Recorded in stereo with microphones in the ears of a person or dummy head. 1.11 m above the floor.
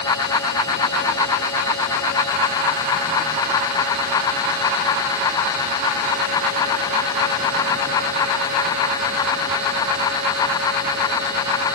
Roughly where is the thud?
I don't hear a thud.